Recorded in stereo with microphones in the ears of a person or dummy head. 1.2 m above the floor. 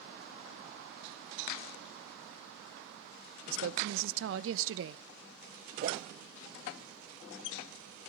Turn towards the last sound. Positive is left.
turn(degrees=-45)  # may be behind; listen again after turning